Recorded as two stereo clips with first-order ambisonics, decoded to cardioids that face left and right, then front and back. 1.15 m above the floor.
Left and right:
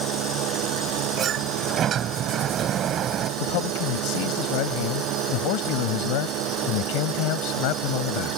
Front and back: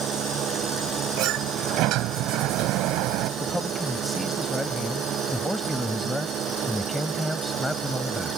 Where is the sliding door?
145° right.